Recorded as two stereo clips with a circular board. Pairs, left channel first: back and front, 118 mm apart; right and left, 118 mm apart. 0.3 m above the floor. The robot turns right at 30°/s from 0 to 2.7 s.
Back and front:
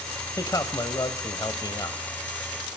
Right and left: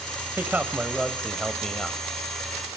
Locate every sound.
0.4 s a man speaking: 145° left, 1.4 m; by 2.0 s 165° right, 1.4 m